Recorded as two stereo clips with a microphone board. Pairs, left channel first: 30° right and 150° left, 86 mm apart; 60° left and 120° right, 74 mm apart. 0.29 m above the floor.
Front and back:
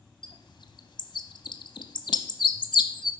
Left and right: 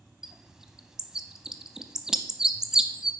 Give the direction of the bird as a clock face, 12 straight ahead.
1 o'clock.